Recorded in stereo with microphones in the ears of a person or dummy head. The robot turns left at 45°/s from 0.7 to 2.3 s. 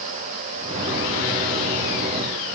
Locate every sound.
Only background noise.